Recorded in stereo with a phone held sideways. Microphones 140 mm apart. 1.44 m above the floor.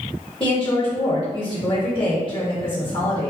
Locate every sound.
0.4 s a woman speaking: 40° left (ahead or behind), 1.8 m